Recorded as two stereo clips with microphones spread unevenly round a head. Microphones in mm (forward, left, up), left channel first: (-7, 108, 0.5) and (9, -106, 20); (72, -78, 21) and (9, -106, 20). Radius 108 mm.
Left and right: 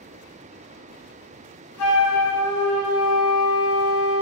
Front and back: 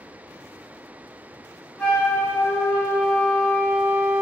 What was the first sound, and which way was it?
A flute, 100° left.